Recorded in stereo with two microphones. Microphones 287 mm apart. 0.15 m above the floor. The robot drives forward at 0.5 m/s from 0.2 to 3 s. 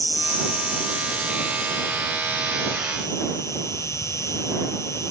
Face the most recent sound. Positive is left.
turn(degrees=10)  # may be behind; listen again after turning